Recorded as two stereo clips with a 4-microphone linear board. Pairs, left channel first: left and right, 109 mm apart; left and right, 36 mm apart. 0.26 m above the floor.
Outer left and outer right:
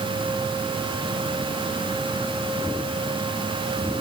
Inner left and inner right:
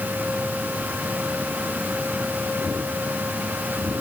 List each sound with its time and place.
Only background noise.